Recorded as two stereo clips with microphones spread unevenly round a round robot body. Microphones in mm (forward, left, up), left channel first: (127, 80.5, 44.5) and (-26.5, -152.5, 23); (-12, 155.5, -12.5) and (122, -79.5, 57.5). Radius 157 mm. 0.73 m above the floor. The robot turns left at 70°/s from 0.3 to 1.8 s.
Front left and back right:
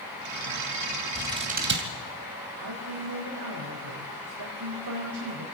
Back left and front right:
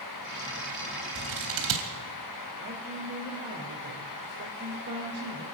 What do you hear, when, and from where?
1.1 s scissors: 35° right, 3 m; by 1.9 s 80° right, 3 m
2.6 s a woman speaking: 120° right, 3.5 m